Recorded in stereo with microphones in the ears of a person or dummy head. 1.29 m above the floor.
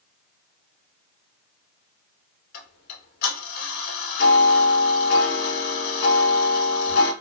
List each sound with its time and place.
2.5 s ticking: 50° left (ahead or behind), 2 m